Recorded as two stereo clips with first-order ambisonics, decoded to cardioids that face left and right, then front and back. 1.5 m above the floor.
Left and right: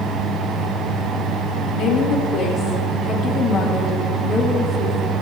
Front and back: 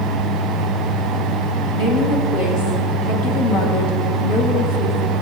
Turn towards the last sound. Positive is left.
turn(degrees=-10)